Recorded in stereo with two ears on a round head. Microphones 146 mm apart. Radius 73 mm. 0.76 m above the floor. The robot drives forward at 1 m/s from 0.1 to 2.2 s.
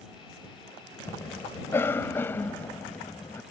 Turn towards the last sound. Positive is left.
turn(degrees=15)  # may be behind; listen again after turning